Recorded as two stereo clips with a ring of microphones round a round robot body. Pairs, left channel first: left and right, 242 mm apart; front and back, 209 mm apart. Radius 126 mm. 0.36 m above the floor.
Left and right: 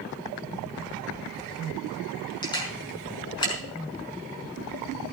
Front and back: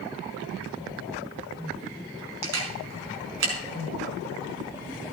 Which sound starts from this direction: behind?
A camera shutter, at 2.4 s.